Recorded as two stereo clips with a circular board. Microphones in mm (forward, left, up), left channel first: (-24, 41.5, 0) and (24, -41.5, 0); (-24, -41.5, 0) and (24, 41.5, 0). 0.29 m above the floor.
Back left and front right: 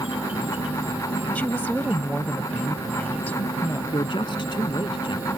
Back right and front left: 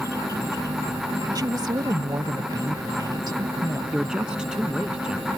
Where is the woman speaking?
55° left.